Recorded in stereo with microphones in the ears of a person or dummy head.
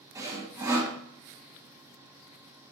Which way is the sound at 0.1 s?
20° right (ahead or behind).